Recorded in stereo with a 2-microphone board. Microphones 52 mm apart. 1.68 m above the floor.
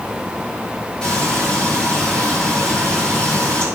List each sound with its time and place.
1.0 s frying: 20° left (ahead or behind), 7 m